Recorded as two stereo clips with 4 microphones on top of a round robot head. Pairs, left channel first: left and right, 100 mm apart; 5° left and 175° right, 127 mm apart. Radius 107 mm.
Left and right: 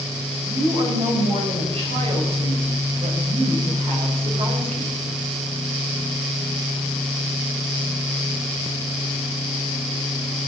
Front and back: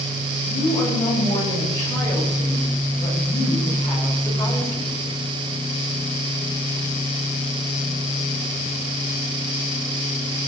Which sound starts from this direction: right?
A woman speaking, at 0.4 s.